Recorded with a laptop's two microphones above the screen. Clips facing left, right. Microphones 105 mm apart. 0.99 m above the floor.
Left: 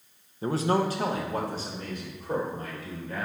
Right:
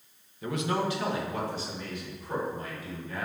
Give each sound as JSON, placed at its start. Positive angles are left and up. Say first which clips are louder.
{"t": 0.4, "sound": "a man speaking", "louder": "left 4 dB", "side_deg": 35, "distance_m": 0.5}